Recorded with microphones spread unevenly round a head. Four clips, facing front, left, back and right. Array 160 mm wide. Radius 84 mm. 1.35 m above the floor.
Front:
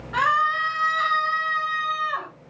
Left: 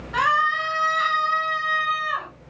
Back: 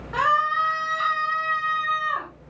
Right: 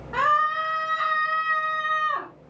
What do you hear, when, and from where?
0.1 s a scream: 130° right, 4.5 m; by 2.3 s 110° right, 4 m